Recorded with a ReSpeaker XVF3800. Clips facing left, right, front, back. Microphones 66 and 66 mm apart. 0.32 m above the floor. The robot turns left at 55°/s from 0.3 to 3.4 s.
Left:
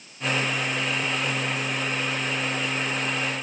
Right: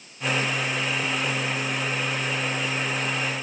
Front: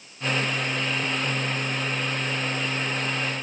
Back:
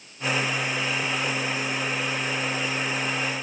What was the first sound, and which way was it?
Only background noise.